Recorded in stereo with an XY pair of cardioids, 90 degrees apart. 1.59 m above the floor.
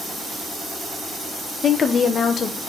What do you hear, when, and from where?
1.6 s a woman speaking: 55° left, 1.0 m